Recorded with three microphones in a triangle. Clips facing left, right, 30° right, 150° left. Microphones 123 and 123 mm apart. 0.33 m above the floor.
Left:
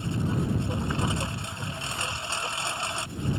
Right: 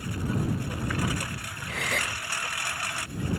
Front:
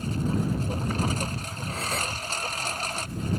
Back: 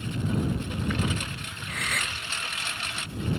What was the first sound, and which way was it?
A lawn mower, 25° left.